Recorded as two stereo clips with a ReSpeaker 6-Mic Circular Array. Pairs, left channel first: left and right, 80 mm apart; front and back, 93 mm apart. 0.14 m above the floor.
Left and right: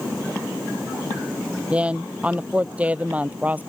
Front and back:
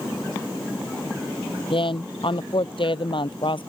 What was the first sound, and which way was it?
A woman speaking, 15° right.